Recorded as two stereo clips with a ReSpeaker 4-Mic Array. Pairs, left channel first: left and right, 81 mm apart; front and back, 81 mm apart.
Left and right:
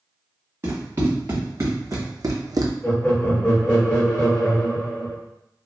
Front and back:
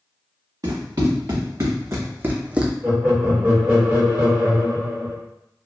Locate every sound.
0.6 s running footsteps: 145° right, 1.6 m; by 2.7 s 100° right, 0.5 m
2.8 s laughter: 130° left, 1.5 m